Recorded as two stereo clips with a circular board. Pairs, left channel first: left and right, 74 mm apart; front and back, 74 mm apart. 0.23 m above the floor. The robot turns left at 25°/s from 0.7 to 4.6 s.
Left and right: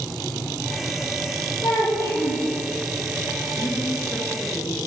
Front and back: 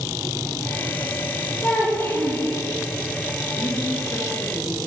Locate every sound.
1.6 s a child speaking: 65° left, 3.5 m; by 2.5 s 45° left, 3.5 m
3.6 s a woman speaking: 45° left, 3 m; by 4.8 s 20° left, 3 m